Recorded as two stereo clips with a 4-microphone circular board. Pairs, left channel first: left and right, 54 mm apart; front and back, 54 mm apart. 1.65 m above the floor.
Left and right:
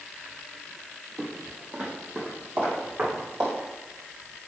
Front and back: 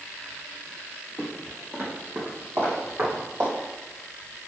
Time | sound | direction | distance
1.2 | footsteps | 150° right | 1.8 m